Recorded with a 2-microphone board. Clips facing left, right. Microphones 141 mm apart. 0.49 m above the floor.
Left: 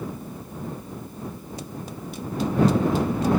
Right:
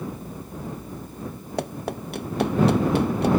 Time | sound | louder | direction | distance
1.6 | running footsteps | right 10 dB | 65° right (ahead or behind) | ?